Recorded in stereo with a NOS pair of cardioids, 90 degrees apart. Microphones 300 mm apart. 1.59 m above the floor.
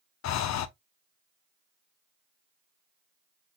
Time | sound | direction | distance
0.2 | breathing | 60° left | 0.7 m